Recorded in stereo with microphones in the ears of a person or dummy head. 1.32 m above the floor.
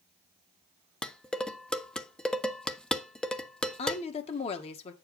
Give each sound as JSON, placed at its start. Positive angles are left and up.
{"t": 1.0, "sound": "dishes clattering", "side_deg": 5, "distance_m": 0.5}
{"t": 3.8, "sound": "a woman speaking", "side_deg": 35, "distance_m": 1.5}